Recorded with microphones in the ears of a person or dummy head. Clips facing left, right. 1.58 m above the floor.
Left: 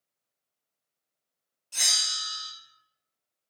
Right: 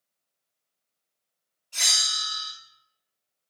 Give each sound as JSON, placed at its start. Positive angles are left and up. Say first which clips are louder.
{"t": 1.7, "sound": "a bell", "louder": "right 3 dB", "side_deg": 70, "distance_m": 2.0}